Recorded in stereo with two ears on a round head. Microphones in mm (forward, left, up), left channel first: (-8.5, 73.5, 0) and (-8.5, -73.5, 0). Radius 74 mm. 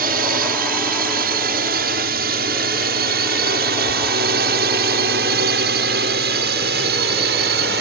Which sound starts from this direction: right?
A drone, at 0.0 s.